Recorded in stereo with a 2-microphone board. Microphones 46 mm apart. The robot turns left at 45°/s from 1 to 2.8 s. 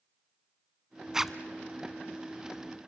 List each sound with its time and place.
1.1 s a zipper: 10° right (ahead or behind), 0.6 m; by 1.3 s 5° right (ahead or behind), 0.6 m